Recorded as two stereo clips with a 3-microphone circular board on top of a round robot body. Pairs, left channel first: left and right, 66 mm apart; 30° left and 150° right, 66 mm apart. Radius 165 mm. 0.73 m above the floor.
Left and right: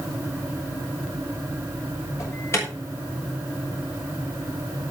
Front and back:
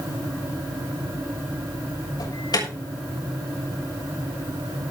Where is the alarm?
45° left, 6.5 m.